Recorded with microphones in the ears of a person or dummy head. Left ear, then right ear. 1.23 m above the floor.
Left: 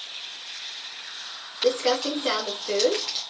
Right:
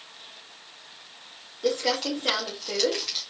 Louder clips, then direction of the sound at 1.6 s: Left 3 dB; 15° left (ahead or behind).